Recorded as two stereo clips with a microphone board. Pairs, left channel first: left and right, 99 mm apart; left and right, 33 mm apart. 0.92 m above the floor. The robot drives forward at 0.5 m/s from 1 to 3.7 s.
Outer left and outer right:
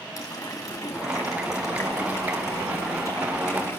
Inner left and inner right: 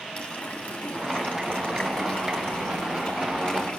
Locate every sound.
0.1 s a running tap: 35° left (ahead or behind), 4.5 m; by 3.8 s 30° left (ahead or behind), 5.5 m